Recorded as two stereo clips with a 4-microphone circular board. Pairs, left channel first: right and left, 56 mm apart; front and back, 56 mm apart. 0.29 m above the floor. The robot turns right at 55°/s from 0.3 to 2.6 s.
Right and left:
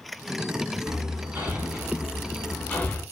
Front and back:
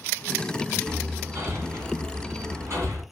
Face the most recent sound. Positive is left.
turn(degrees=-150)